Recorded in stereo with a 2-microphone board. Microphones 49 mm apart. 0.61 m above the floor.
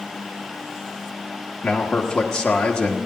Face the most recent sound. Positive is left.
turn(degrees=20)  # may be behind; listen again after turning